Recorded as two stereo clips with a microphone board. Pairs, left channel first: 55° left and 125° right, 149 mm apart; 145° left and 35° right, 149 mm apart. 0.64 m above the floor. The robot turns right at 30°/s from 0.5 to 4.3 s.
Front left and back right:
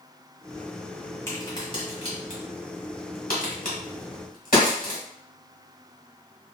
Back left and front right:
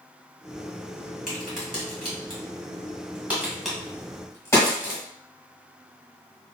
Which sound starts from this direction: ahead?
A crack, at 1.3 s.